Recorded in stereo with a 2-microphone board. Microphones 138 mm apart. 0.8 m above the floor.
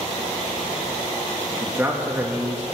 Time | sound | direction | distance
1.6 | a man speaking | 15° right (ahead or behind) | 1.0 m